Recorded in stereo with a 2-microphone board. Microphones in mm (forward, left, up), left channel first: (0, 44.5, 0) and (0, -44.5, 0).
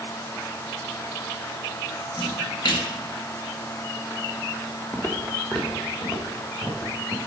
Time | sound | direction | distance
2.2 | a splash | 60° left (ahead or behind) | 1.3 m
4.9 | footsteps | 25° left (ahead or behind) | 1.0 m